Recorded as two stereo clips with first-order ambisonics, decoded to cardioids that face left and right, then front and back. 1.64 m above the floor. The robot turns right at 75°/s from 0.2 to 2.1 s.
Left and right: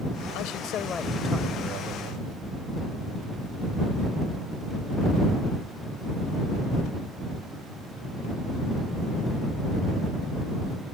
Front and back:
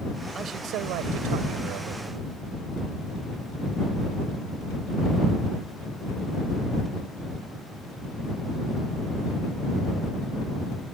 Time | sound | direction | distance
0.3 | a man speaking | 110° left | ?